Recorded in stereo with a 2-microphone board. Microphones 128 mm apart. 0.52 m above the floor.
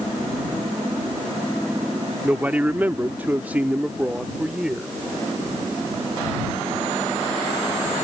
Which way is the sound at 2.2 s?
10° right (ahead or behind).